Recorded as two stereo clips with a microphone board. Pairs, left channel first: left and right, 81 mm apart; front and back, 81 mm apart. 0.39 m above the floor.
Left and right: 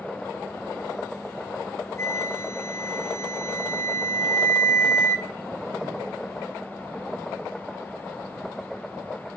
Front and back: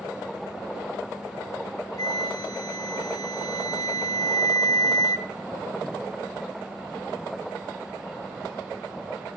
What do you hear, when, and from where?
2.0 s a flute: 35° left, 0.7 m